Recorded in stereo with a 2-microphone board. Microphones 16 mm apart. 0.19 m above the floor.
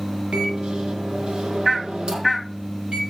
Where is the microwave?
65° right (ahead or behind), 4.5 m.